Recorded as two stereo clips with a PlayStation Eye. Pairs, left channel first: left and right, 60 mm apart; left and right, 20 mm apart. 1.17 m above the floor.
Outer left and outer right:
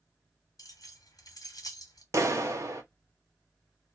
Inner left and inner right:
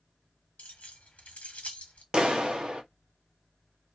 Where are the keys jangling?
75° left (ahead or behind), 1.1 m.